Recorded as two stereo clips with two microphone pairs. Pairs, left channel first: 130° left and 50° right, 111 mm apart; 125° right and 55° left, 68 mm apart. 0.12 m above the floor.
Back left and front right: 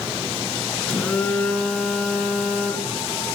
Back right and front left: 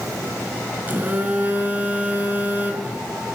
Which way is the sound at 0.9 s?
70° left.